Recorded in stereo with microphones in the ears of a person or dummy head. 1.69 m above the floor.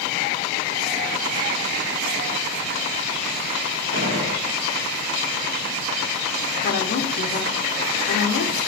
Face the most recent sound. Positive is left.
turn(degrees=55)  # may be behind; listen again after turning